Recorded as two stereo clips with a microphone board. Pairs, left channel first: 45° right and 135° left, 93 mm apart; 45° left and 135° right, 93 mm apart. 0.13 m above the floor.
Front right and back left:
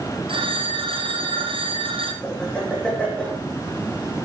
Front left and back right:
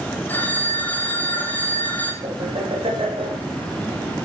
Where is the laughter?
125° right, 7.5 m.